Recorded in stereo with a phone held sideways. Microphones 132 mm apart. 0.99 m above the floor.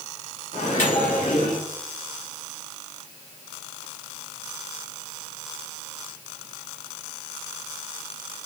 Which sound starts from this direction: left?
A microwave, at 0.5 s.